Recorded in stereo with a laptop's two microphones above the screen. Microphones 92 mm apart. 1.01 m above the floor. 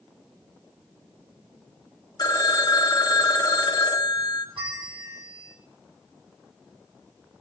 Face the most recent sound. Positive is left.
turn(degrees=-65)  # may be behind; listen again after turning